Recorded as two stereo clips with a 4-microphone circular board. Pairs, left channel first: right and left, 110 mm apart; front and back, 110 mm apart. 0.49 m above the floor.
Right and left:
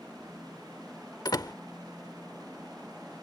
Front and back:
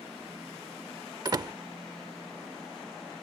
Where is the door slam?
135° right.